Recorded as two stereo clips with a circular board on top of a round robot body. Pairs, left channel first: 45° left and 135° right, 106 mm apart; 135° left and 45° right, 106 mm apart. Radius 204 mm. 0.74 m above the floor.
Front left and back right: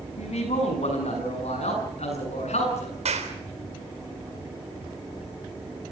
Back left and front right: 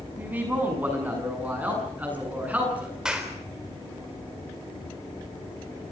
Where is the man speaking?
30° left, 6.5 m.